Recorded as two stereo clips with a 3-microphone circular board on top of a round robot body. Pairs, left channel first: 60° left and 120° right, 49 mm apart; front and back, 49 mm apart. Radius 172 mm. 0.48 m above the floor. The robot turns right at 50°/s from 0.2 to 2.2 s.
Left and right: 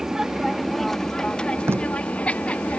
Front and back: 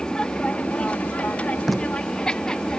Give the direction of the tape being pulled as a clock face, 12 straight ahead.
3 o'clock.